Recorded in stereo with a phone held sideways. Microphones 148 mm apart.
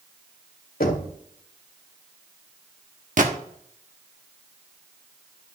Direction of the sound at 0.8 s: 80° left.